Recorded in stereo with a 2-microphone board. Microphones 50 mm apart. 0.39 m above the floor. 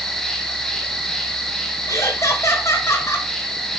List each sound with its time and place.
0.0 s an insect: 10° left (ahead or behind), 1.9 m
1.9 s laughter: 70° left (ahead or behind), 2.5 m